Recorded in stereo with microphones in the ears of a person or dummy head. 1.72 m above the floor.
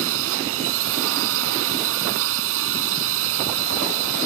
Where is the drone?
70° right (ahead or behind).